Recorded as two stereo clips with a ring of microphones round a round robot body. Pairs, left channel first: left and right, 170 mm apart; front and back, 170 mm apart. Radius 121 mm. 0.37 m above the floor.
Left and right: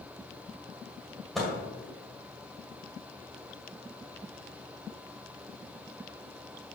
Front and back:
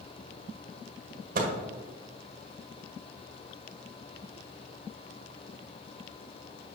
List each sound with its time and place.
1.4 s a microwave: straight behind, 1.4 m